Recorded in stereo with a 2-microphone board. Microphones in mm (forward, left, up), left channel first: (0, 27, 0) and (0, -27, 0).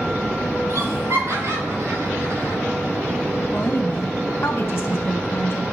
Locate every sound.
0.7 s laughter: 75° right (ahead or behind), 3.5 m
3.5 s a woman speaking: 50° left (ahead or behind), 2.5 m